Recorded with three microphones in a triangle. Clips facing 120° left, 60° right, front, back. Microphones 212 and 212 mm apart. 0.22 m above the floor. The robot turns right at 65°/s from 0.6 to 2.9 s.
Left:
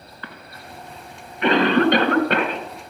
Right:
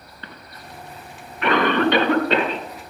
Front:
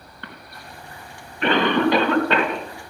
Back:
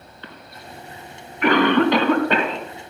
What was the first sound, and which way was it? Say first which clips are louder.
A cough: left 1 dB, back 1 dB; 5° right.